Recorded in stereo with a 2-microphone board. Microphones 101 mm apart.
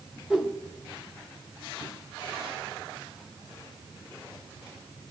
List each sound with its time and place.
0.3 s a whoosh: 10° right (ahead or behind), 0.6 m